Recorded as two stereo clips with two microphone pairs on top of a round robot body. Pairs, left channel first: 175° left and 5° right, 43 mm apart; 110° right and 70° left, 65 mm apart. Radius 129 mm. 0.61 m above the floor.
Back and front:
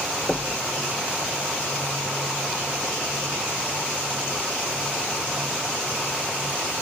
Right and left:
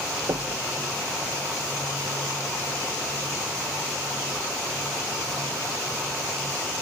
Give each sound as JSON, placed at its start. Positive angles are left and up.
{"t": 0.3, "sound": "knocking", "azimuth_deg": 100}